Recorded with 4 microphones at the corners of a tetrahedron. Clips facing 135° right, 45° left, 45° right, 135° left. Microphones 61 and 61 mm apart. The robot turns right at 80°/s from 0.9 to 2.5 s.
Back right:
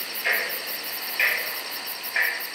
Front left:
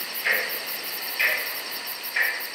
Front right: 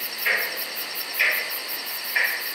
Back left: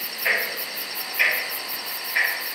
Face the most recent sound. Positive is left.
turn(degrees=-85)